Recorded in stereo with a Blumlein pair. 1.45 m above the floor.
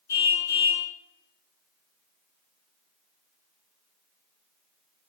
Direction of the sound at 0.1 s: 65° left.